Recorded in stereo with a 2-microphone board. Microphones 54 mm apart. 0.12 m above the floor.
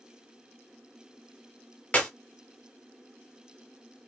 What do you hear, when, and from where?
1.9 s a clap: 25° left (ahead or behind), 1.5 m